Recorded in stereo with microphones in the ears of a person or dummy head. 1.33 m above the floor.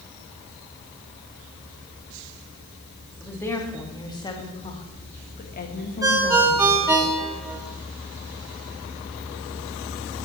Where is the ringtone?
15° right (ahead or behind), 1.8 m.